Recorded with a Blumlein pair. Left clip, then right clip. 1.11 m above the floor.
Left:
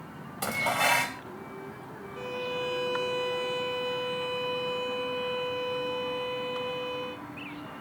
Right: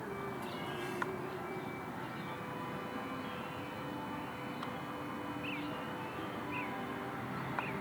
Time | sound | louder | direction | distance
0.4 | dishes clattering | left 15 dB | 50° left | ?
2.2 | a violin | left 10 dB | 50° left | ?